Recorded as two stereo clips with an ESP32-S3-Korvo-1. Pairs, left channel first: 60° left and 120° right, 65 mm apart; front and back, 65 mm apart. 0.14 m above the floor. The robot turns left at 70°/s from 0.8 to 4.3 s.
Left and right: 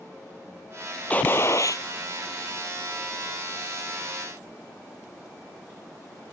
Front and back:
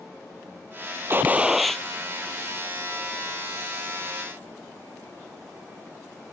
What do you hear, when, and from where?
1.1 s a gunshot: 130° left; by 1.8 s 75° left